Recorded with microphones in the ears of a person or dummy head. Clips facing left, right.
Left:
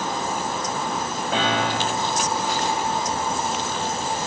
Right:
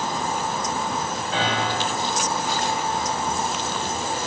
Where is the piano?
55° left (ahead or behind), 1.8 m.